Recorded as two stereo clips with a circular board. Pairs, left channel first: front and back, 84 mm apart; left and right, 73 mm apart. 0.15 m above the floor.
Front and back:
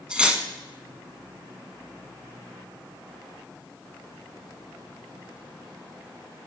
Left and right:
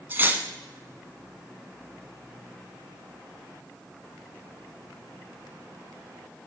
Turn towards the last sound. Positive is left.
turn(degrees=-110)